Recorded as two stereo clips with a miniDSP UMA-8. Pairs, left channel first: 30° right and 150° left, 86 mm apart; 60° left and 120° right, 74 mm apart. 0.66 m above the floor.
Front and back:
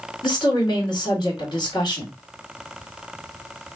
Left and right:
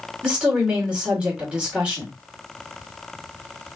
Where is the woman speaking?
50° right, 2.0 m.